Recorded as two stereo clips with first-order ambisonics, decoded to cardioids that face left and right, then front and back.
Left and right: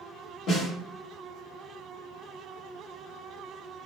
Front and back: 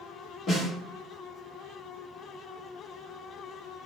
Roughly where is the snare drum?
Ahead left.